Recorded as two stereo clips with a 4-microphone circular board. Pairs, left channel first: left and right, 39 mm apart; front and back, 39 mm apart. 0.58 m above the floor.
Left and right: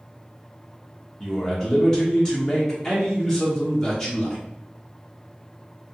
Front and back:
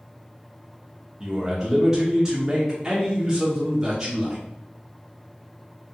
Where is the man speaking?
145° left, 0.6 m.